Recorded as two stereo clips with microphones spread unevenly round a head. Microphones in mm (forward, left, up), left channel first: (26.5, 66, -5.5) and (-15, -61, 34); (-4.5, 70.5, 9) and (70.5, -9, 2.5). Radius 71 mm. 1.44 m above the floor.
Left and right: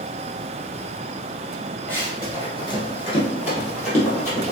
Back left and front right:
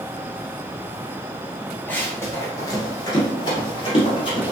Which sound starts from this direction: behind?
Running footsteps, at 1.9 s.